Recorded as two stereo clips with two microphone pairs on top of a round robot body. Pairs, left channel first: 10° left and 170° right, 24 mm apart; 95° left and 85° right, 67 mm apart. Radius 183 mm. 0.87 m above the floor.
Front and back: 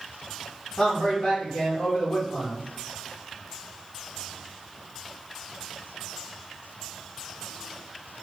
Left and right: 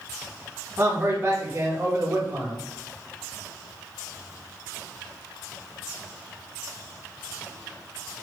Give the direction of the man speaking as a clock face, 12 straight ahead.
1 o'clock.